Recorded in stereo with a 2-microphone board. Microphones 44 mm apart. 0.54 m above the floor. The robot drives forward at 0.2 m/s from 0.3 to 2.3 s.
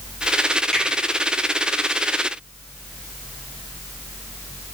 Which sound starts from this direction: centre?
A finger snap, at 0.7 s.